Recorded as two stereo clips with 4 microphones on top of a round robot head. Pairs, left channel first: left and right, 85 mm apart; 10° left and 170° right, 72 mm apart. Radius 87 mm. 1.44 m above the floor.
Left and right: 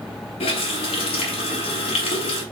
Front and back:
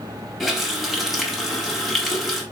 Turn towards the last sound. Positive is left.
turn(degrees=95)